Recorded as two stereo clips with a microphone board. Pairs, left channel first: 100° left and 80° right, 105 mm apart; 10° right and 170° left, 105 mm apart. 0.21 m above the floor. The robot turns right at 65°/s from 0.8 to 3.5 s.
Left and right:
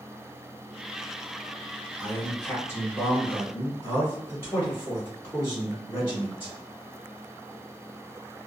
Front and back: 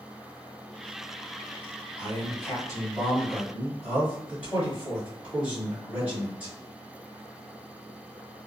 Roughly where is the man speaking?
Ahead.